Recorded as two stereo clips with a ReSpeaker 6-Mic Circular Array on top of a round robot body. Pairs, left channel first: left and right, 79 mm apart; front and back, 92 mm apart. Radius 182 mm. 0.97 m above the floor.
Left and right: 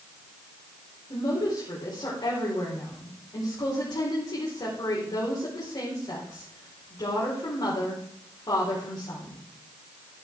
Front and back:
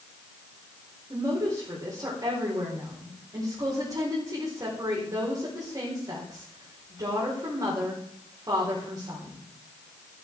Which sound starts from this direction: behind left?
A woman speaking, at 1.1 s.